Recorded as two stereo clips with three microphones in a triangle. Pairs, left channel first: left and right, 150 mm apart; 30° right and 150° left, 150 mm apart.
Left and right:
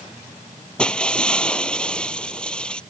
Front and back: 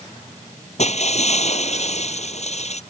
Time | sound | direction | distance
0.8 | breaking glass | 5° left | ?